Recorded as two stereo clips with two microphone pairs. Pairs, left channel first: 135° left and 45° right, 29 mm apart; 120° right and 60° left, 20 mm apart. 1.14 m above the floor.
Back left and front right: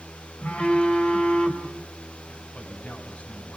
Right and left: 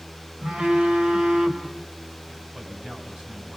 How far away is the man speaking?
About 8.5 m.